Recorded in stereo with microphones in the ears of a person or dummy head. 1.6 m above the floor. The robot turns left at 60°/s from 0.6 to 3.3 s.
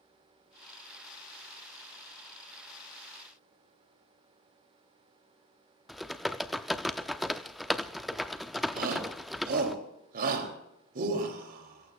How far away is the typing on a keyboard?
About 0.6 m.